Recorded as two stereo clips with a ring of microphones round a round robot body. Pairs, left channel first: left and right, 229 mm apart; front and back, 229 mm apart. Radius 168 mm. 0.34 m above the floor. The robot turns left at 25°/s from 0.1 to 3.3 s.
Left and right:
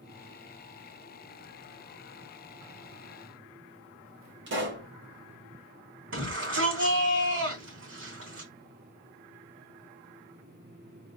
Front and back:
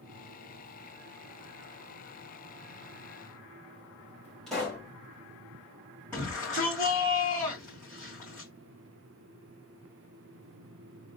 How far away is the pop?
About 2.5 m.